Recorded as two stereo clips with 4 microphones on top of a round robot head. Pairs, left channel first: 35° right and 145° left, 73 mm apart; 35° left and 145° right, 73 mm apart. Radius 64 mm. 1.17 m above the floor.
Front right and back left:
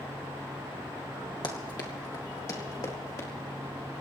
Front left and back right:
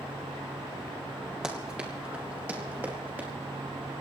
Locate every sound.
1.4 s running footsteps: 65° right, 2.5 m; by 3.3 s 80° right, 5 m